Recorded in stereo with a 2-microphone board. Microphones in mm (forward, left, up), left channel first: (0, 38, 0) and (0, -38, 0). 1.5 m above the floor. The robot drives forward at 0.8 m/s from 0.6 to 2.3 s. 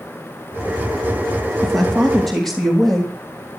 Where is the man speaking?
5° left (ahead or behind), 2.5 m.